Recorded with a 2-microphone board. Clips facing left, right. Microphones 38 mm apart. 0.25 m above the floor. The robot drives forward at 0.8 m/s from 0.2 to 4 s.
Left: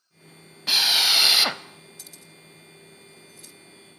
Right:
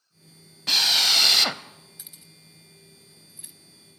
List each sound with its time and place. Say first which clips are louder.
0.7 s a drill: left 1 dB; 5° left (ahead or behind), 0.8 m
2.0 s keys jangling: left 4 dB; 20° right (ahead or behind), 0.9 m; by 3.5 s 15° right (ahead or behind), 1.2 m